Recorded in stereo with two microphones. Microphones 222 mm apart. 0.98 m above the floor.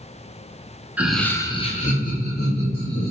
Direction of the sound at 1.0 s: 5° right (ahead or behind).